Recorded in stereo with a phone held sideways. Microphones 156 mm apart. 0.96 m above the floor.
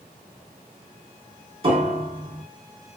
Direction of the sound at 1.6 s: 35° right (ahead or behind).